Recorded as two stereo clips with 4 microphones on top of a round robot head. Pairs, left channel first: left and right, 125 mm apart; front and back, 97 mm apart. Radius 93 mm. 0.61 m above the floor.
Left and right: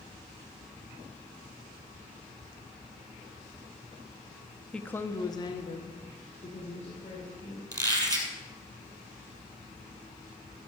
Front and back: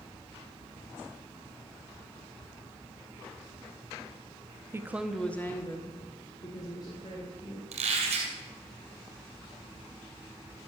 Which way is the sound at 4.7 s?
165° left.